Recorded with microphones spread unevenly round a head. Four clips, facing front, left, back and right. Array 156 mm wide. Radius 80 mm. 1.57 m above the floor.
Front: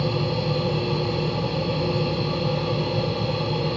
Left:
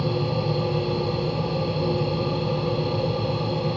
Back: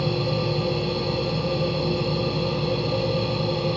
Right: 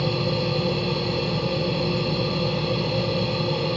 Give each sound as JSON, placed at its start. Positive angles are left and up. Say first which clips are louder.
{"t": 0.0, "sound": "a machine running", "louder": "even, even", "azimuth_deg": -60, "distance_m": 0.8}